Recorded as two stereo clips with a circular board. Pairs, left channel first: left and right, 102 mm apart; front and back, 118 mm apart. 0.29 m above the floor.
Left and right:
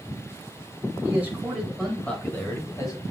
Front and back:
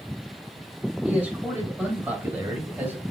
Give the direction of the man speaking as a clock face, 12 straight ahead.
4 o'clock.